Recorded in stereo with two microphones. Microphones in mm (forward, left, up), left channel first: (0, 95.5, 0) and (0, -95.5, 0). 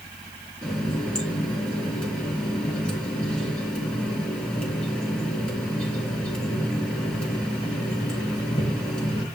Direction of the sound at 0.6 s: 5° left (ahead or behind).